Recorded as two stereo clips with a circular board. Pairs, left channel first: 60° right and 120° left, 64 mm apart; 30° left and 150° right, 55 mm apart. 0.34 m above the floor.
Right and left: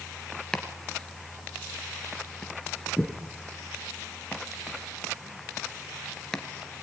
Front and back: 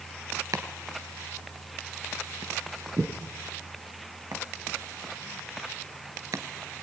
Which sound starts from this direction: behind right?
Chopping, at 0.5 s.